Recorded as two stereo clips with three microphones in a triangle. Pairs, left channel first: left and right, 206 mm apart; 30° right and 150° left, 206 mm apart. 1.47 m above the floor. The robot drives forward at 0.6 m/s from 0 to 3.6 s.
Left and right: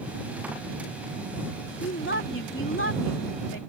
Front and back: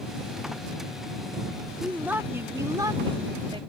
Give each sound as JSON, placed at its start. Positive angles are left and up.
{"t": 1.8, "sound": "a woman speaking", "azimuth_deg": 65}